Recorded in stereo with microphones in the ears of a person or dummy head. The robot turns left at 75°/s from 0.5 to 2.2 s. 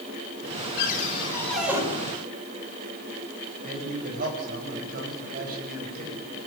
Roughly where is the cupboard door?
Ahead left.